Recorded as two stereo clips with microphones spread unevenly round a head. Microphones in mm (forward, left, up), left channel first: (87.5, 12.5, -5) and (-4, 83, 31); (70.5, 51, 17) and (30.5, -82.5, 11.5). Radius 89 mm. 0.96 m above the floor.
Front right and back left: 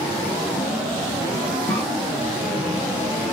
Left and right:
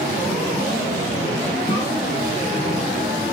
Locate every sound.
1.7 s a cough: 35° left, 1.9 m